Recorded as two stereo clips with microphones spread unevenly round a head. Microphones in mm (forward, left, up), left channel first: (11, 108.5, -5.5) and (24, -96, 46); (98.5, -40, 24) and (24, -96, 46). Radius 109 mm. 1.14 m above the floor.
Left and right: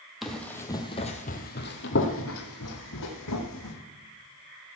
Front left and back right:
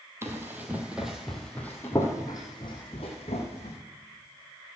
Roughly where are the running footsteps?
Behind right.